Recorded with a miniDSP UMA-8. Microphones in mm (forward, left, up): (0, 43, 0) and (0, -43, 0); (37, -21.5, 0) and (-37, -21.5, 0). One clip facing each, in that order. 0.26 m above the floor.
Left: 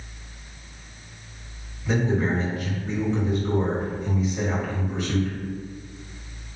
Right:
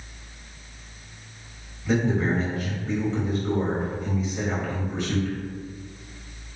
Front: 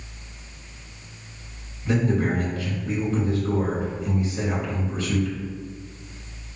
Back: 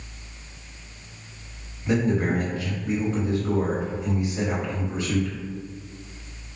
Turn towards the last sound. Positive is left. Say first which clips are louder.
# even, even
turn(degrees=180)